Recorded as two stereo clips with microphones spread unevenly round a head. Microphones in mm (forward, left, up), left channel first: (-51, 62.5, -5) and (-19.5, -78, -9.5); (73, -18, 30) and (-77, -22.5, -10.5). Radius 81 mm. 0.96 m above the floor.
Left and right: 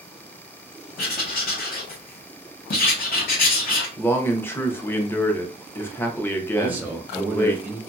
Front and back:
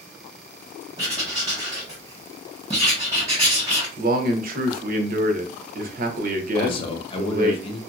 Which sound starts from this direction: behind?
A man speaking, at 4.0 s.